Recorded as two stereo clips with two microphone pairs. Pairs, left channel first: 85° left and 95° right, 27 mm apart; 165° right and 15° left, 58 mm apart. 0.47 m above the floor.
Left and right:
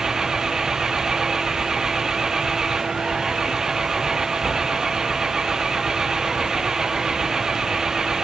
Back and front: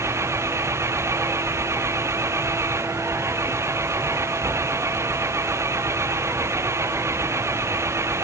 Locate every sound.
0.0 s an engine running: 25° right